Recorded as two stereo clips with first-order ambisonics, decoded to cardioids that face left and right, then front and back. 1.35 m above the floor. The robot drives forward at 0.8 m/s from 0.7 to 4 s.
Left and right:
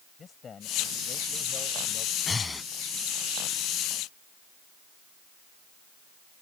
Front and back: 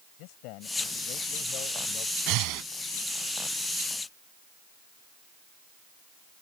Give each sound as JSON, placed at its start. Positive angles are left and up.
{"t": 0.2, "sound": "a man speaking", "azimuth_deg": 20}
{"t": 2.3, "sound": "breathing", "azimuth_deg": 165}